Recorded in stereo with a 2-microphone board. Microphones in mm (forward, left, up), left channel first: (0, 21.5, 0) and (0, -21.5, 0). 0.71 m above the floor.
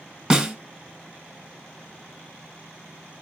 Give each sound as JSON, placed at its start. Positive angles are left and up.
{"t": 0.3, "sound": "a snare drum", "side_deg": -15, "distance_m": 0.9}